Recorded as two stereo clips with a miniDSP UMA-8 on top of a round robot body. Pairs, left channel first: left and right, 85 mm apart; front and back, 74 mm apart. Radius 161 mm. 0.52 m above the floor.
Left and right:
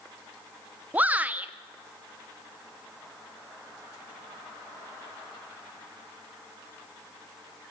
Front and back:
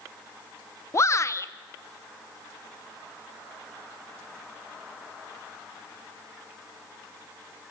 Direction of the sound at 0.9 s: 25° right.